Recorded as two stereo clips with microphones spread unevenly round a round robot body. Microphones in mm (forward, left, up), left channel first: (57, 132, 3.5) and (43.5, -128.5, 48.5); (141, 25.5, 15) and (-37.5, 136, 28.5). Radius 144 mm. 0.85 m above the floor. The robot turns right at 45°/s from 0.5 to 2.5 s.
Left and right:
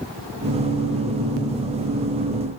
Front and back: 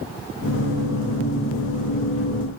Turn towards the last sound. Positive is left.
No sound to turn to.